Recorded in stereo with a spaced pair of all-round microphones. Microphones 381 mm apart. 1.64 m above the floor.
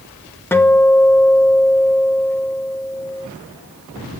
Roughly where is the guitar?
Centre.